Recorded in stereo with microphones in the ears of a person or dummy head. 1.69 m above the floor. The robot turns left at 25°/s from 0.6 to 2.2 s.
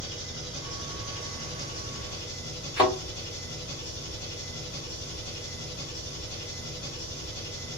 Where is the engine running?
140° left, 1.9 m; by 7.8 s 100° left, 1.9 m.